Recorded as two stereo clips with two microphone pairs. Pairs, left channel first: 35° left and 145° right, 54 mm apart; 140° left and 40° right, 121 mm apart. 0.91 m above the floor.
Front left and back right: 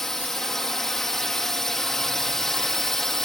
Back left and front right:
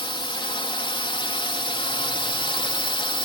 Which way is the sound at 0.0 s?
115° left.